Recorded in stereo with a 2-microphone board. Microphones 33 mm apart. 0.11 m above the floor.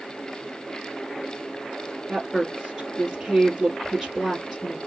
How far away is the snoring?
No snoring in this recording.